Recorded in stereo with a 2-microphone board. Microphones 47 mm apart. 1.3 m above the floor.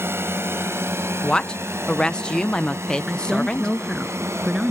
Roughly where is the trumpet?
I don't hear a trumpet.